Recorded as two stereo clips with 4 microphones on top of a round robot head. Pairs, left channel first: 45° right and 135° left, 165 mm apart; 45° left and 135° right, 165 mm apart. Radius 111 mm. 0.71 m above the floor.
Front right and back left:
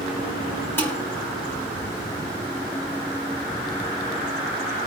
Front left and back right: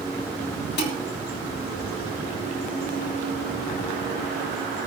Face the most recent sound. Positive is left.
turn(degrees=30)